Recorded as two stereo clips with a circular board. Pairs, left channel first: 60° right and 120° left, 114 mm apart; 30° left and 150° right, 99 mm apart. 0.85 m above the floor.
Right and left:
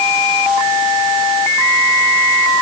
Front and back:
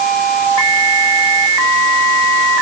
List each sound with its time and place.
Only background noise.